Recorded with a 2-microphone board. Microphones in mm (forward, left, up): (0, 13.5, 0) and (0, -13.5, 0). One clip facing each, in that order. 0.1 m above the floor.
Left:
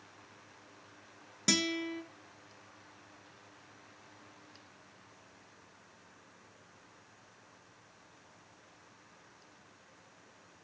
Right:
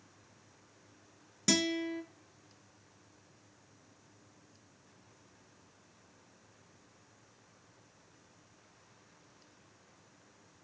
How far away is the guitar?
About 0.6 m.